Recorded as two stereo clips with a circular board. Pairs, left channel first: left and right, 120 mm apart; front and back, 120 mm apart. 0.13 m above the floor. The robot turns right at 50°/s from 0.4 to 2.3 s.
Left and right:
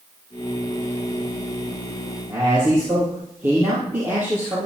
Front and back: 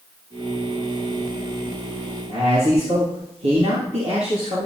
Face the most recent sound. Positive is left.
turn(degrees=-160)